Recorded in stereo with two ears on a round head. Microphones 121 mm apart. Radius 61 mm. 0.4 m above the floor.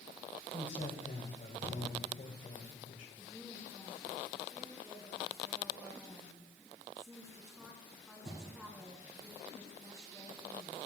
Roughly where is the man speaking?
Left.